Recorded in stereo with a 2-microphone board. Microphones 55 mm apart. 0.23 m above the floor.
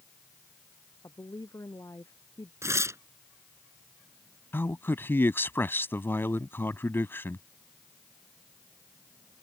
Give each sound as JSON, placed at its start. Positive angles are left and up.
{"t": 1.0, "sound": "a woman speaking", "side_deg": 70}
{"t": 2.6, "sound": "tearing paper", "side_deg": -65}
{"t": 4.5, "sound": "a man speaking", "side_deg": 45}